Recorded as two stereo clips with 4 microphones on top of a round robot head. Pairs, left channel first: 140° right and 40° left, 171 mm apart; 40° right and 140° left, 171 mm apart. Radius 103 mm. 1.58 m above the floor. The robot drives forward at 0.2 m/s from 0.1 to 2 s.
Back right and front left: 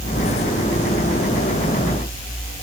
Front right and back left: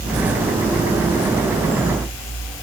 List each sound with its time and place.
Only background noise.